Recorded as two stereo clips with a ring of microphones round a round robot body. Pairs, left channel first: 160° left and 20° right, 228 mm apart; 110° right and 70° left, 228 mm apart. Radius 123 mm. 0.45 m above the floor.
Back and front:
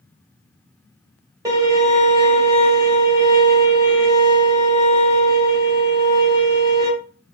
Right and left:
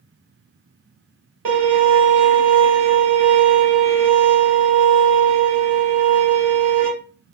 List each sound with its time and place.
1.4 s a violin: 50° left, 1.7 m